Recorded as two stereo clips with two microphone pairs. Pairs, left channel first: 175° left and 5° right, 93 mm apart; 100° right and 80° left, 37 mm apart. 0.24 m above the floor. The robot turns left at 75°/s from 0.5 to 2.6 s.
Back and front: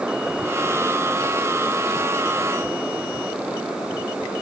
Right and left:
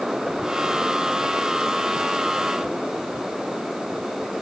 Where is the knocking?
I don't hear knocking.